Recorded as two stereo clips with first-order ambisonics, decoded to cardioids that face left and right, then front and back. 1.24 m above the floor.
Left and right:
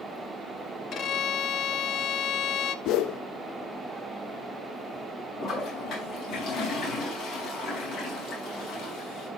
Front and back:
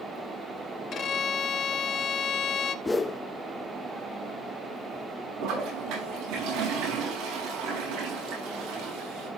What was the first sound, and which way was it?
A violin, 45° left.